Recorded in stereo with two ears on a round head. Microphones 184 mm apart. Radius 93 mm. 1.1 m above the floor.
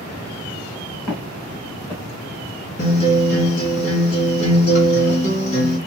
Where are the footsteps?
20° left (ahead or behind), 4 m.